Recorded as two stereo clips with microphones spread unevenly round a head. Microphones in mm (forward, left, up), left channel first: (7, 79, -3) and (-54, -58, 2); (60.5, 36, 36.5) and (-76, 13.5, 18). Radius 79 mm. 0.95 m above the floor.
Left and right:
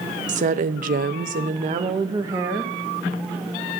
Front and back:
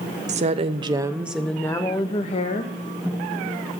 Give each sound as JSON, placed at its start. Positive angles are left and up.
{"t": 0.3, "sound": "a woman speaking", "azimuth_deg": -150, "distance_m": 0.8}